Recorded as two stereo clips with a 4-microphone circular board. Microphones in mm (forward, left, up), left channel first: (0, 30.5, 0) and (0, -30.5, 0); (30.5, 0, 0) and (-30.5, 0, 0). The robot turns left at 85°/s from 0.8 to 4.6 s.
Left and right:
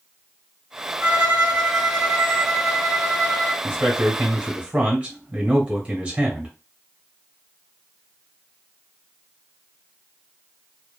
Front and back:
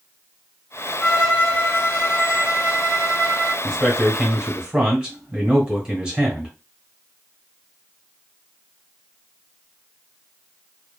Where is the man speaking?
45° right, 1.5 m; by 6.5 s 130° right, 1.5 m.